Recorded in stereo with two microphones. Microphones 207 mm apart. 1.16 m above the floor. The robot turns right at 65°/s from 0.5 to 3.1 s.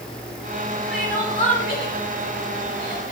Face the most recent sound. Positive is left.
turn(degrees=40)  # may be behind; listen again after turning